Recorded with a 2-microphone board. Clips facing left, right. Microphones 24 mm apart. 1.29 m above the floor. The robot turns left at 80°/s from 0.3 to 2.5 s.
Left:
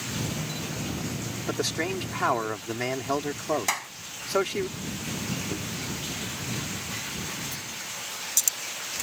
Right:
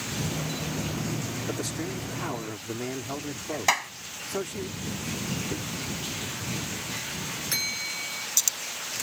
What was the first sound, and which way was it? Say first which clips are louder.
A man speaking: left 8 dB; 140° left.